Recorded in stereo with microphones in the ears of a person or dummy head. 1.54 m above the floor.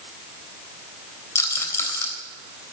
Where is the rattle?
15° left (ahead or behind), 3.5 m.